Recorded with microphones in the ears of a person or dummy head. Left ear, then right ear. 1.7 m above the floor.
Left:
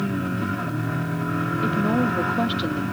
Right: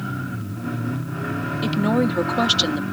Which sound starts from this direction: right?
A woman speaking, at 1.6 s.